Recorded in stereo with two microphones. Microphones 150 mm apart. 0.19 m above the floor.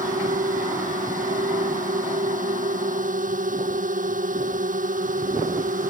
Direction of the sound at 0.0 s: 60° right (ahead or behind).